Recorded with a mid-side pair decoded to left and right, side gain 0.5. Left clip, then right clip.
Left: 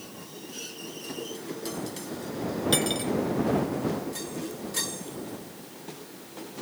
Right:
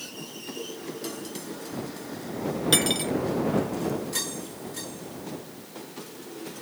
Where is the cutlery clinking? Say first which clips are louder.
Right 4 dB; 25° right.